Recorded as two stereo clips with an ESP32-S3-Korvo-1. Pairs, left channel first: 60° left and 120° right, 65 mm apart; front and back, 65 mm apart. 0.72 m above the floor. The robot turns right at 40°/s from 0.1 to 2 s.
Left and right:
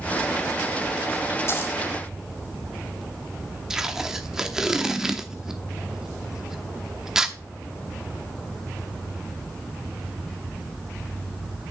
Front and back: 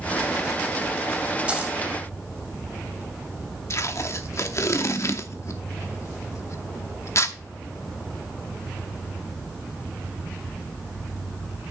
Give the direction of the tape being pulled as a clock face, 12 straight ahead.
1 o'clock.